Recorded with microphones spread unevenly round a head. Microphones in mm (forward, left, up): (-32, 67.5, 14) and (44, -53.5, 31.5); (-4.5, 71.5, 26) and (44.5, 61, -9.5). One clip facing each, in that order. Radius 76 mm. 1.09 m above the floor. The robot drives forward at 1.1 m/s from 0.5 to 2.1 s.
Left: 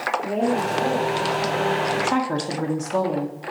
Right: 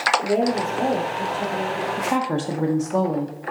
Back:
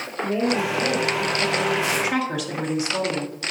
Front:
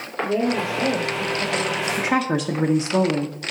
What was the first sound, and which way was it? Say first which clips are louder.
A woman speaking: left 2 dB, front 1 dB; 75° right.